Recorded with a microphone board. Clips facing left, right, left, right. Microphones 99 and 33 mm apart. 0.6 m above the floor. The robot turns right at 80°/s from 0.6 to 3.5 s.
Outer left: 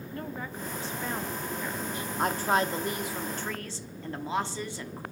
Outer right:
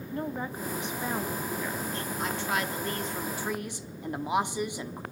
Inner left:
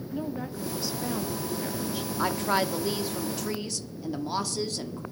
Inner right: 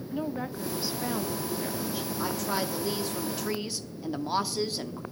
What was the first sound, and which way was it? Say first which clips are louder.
A woman speaking: outer right 5 dB, inner right 1 dB; 20° right (ahead or behind).